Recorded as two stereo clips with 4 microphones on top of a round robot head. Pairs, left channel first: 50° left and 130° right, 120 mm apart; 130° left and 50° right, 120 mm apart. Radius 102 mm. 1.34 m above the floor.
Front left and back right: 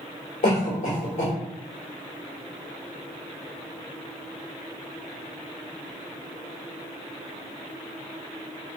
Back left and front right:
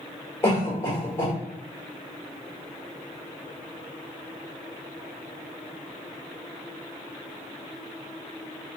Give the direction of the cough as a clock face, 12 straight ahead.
10 o'clock.